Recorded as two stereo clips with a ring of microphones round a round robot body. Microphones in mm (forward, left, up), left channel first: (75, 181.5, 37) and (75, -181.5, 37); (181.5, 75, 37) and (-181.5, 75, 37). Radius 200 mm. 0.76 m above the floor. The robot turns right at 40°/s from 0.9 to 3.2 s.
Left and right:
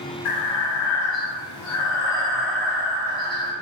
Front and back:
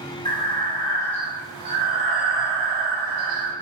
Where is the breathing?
75° left, 1.2 m; by 3.5 s 170° left, 1.2 m.